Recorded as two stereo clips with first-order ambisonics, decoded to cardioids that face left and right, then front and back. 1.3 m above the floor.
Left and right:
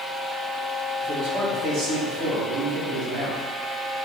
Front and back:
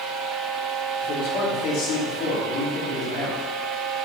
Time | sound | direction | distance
1.0 | a man speaking | 35° right | 2.5 m